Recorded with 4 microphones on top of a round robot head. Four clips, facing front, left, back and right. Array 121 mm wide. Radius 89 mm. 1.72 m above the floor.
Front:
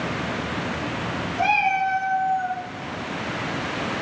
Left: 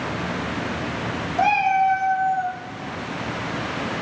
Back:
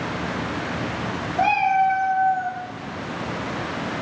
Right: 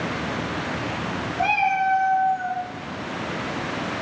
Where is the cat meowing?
130° left, 5.5 m; by 2.6 s 140° left, 6 m.